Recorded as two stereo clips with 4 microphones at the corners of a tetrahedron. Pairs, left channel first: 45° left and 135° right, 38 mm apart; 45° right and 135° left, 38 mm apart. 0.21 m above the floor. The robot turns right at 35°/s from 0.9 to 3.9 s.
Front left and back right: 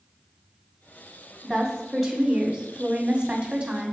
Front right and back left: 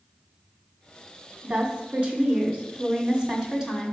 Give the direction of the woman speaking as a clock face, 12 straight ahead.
8 o'clock.